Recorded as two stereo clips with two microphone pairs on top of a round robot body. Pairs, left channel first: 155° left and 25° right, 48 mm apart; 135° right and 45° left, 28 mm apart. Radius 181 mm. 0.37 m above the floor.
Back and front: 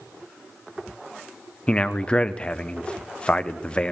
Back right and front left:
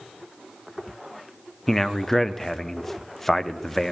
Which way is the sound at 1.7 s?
140° left.